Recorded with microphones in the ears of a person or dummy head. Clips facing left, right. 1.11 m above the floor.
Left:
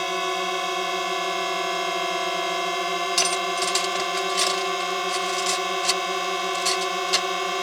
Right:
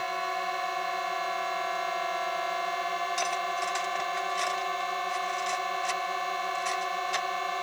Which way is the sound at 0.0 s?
45° left (ahead or behind).